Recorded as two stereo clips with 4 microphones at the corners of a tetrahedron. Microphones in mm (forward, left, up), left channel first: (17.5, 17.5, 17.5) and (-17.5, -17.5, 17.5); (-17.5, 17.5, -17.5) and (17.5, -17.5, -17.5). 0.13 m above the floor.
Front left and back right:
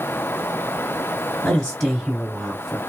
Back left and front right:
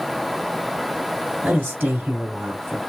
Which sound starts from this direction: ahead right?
A man speaking, at 1.4 s.